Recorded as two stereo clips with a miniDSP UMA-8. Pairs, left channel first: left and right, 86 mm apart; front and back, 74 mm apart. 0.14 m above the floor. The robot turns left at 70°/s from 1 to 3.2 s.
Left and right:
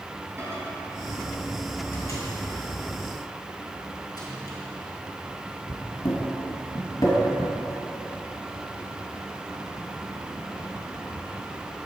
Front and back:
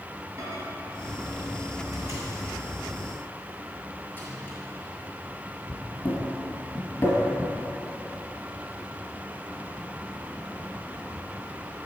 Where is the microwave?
150° right, 2.0 m; by 7.5 s 60° left, 2.0 m.